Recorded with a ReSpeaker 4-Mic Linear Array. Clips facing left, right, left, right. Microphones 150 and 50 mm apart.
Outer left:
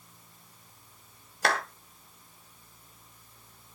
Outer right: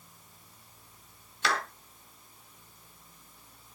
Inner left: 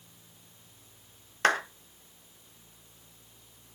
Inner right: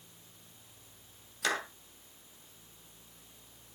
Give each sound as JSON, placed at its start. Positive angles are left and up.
{"t": 1.4, "sound": "a clap", "side_deg": 55, "distance_m": 2.0}